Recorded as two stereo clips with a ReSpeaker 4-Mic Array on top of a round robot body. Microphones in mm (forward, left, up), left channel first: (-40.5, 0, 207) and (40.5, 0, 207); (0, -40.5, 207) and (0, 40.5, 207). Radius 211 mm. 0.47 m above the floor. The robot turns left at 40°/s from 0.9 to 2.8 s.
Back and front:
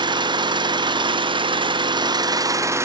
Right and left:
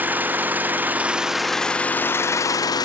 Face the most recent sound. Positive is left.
turn(degrees=-55)